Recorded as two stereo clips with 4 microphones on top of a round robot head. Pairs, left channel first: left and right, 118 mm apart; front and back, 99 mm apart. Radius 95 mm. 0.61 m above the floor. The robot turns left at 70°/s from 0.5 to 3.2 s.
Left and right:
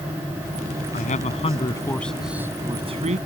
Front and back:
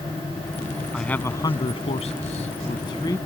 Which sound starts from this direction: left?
A man speaking, at 0.9 s.